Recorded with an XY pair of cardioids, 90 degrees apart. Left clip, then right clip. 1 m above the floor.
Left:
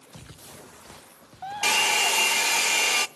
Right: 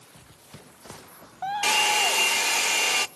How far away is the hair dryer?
About 0.6 m.